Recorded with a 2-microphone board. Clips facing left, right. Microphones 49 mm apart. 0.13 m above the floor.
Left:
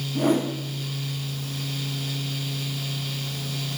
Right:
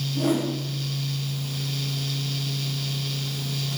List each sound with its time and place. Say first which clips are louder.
0.1 s a whoosh: left 2 dB; 55° left (ahead or behind), 5.5 m